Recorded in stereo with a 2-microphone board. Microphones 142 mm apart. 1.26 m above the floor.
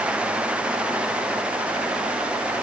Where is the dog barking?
No dog barking in this recording.